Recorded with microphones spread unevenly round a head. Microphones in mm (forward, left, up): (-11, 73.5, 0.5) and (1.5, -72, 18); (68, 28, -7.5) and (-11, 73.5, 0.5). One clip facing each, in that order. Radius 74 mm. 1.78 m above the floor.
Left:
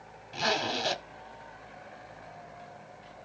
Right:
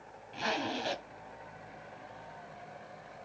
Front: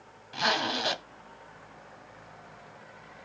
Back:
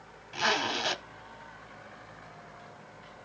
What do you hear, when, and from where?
0.3 s a zipper: 55° left, 0.8 m